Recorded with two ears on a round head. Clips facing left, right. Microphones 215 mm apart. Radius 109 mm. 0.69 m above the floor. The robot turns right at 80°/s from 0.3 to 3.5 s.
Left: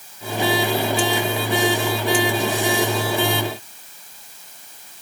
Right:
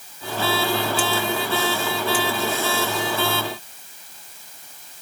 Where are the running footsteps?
No running footsteps in this recording.